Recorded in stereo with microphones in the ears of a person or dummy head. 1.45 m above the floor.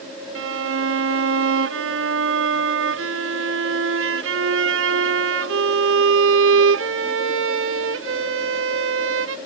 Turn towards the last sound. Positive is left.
turn(degrees=-70)  # may be behind; listen again after turning